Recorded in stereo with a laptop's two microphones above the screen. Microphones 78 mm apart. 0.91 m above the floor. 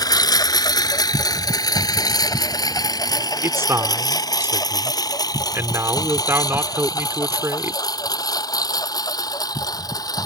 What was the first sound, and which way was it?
A lawn mower, 55° left (ahead or behind).